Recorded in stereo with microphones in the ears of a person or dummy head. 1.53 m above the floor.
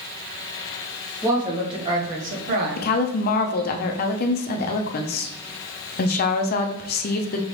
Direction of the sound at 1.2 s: 20° right (ahead or behind).